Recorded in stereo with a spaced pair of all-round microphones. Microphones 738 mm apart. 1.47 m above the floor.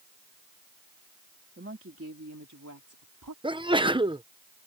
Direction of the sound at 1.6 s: 15° right (ahead or behind).